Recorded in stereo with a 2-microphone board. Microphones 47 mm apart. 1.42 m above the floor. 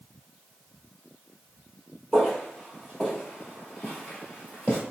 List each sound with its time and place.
2.1 s footsteps: 10° left (ahead or behind), 1.6 m; by 4.8 s 25° left (ahead or behind), 1.6 m